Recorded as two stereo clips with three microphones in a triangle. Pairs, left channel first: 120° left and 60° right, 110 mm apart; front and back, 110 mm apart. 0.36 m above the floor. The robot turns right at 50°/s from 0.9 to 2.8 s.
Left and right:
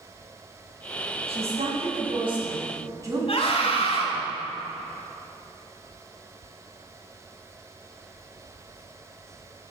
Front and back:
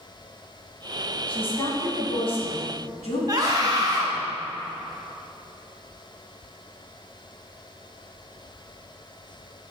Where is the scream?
130° left, 2 m.